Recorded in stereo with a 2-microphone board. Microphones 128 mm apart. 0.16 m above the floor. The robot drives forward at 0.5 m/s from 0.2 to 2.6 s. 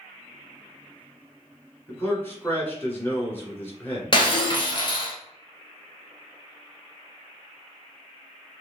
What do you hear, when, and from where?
1.9 s a man speaking: 20° left (ahead or behind), 1.4 m; by 4.2 s 15° left (ahead or behind), 1.6 m
4.1 s breaking glass: 40° left (ahead or behind), 1.2 m